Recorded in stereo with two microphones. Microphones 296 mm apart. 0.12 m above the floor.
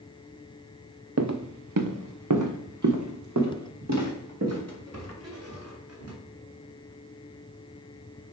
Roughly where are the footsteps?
Right.